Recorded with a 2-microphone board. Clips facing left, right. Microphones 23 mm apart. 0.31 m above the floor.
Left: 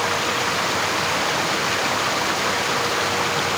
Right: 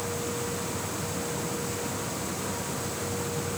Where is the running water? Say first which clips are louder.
Left 11 dB; 70° left (ahead or behind).